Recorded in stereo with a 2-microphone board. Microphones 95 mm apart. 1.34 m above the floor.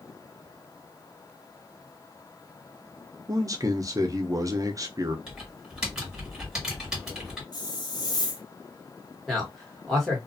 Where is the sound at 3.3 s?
35° right (ahead or behind), 0.6 m.